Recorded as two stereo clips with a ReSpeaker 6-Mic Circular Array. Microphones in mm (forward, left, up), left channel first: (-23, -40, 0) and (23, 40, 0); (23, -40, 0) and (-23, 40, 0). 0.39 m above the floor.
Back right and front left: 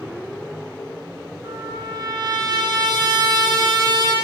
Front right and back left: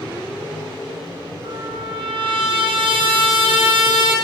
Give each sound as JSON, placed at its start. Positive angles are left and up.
{"t": 1.4, "sound": "a trumpet", "azimuth_deg": 100, "distance_m": 5.5}